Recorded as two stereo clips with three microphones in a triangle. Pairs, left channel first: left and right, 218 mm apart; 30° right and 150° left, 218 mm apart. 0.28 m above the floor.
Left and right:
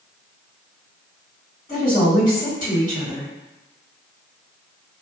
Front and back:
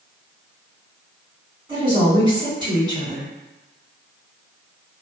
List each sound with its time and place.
1.7 s a woman speaking: 95° left, 1.9 m